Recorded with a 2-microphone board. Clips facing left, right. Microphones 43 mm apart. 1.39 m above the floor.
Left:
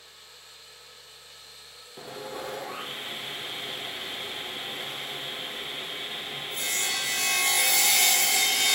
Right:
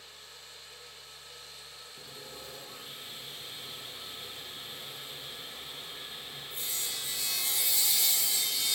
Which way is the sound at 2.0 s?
65° left (ahead or behind).